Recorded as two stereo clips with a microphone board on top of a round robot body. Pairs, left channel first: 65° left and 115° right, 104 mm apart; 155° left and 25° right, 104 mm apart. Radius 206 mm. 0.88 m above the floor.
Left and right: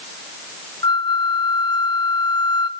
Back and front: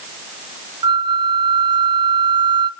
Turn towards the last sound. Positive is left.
turn(degrees=20)